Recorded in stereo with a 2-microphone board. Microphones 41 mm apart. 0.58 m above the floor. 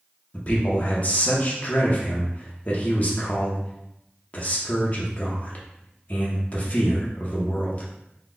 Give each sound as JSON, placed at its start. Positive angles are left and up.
{"t": 0.3, "sound": "a man speaking", "side_deg": 35, "distance_m": 0.9}